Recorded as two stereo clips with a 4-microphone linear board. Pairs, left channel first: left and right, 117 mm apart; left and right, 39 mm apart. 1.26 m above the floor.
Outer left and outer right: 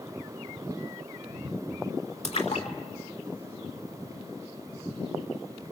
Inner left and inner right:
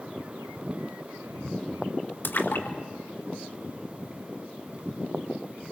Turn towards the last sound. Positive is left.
turn(degrees=75)  # may be behind; listen again after turning